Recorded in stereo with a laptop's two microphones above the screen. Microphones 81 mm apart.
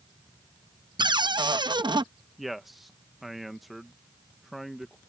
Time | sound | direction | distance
1.0 | a cupboard door | 60° right (ahead or behind) | ?
2.4 | a man speaking | centre (ahead or behind) | ?